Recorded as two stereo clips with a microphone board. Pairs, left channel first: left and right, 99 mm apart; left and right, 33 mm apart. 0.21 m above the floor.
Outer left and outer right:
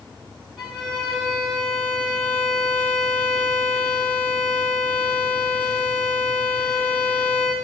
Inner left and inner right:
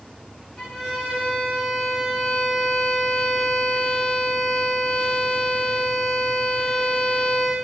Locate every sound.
0.6 s a violin: centre (ahead or behind), 8 m